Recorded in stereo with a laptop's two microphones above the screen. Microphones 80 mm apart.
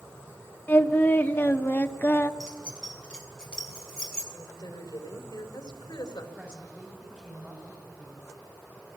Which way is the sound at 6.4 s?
25° right (ahead or behind).